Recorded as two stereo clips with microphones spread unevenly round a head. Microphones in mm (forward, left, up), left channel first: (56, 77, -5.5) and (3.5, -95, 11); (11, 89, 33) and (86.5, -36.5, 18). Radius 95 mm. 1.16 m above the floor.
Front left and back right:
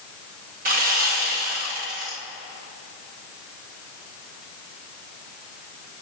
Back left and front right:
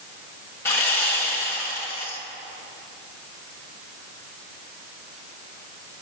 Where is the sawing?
160° right, 1.8 m.